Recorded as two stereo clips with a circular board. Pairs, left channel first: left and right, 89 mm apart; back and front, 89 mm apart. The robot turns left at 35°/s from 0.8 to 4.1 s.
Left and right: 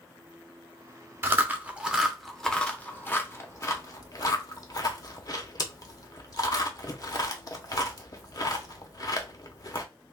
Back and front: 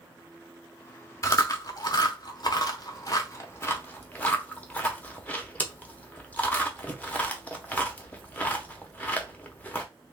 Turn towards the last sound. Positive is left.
turn(degrees=115)